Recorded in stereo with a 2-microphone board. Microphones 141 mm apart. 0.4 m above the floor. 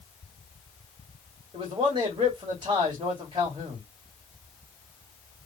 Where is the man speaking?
35° right (ahead or behind), 1.9 m.